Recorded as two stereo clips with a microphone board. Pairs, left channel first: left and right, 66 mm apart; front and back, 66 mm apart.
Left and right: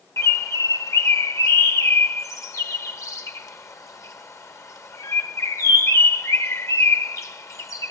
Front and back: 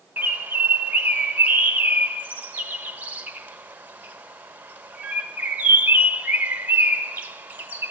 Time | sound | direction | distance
0.2 | a bird | 120° left | 1.1 m